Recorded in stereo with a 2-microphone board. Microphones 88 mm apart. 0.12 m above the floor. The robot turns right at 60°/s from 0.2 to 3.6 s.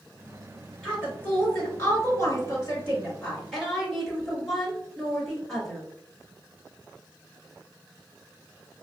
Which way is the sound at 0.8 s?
10° left.